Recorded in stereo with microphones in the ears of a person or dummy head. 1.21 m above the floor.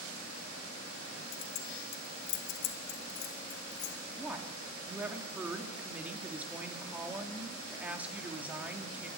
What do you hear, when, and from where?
1.3 s keys jangling: 80° left, 1.3 m; by 4.0 s 75° left (ahead or behind), 2.5 m
4.2 s a woman speaking: centre (ahead or behind), 2.5 m